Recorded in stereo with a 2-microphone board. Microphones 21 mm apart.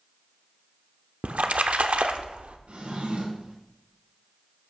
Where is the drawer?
80° right, 3.5 m.